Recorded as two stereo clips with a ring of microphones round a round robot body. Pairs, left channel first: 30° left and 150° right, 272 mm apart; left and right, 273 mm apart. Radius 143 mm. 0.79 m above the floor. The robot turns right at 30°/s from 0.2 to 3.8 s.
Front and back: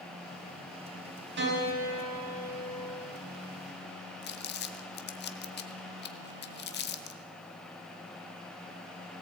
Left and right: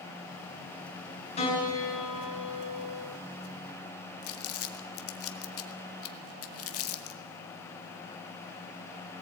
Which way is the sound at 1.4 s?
160° left.